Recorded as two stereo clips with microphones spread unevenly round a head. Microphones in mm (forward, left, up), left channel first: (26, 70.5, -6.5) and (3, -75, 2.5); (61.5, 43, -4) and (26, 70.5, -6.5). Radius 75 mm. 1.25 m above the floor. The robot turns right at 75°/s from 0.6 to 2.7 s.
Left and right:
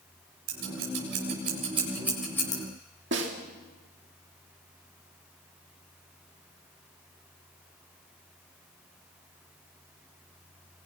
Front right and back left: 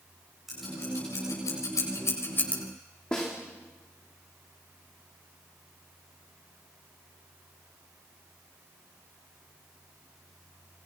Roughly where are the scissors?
Behind right.